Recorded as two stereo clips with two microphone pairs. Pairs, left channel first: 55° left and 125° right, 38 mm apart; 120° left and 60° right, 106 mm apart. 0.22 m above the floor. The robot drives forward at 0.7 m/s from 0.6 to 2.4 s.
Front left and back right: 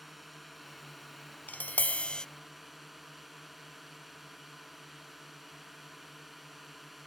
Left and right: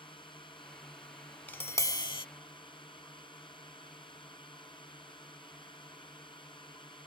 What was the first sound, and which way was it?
A drone, 140° left.